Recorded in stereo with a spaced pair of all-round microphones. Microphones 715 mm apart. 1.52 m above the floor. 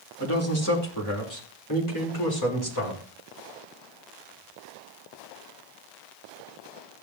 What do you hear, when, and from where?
0.2 s a man speaking: 20° left (ahead or behind), 3 m; by 3.0 s 35° left (ahead or behind), 4 m